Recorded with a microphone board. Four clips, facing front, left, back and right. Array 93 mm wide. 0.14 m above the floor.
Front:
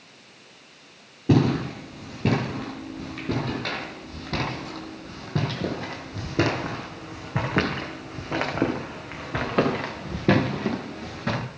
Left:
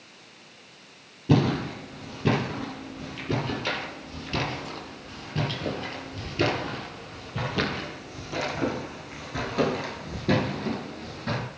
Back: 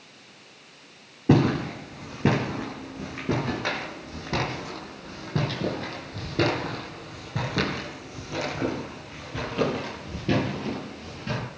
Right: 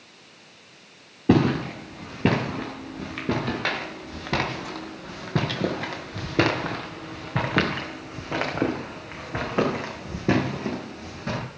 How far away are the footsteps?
About 6.5 m.